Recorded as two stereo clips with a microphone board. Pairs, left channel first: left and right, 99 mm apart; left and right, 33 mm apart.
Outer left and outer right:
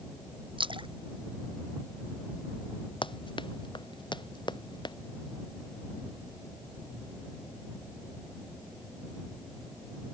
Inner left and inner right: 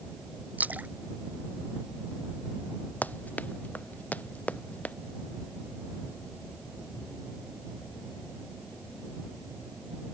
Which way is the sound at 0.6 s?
55° right (ahead or behind).